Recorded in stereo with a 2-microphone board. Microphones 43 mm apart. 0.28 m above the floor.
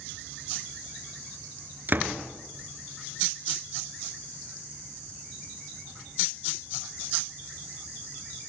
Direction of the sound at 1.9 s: 45° right (ahead or behind).